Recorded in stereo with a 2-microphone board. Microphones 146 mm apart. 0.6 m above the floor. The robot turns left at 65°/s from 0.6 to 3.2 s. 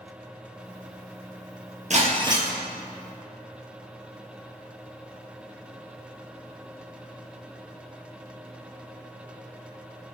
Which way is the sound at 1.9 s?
125° right.